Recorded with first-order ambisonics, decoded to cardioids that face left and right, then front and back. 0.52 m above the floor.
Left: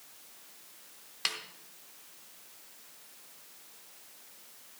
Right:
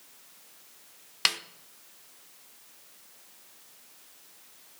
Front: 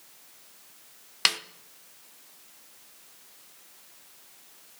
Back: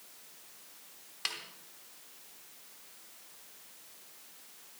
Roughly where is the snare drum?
Ahead right.